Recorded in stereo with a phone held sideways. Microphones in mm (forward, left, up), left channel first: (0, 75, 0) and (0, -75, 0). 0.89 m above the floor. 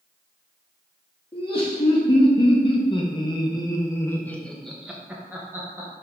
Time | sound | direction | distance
1.3 | laughter | 40° left (ahead or behind) | 2.0 m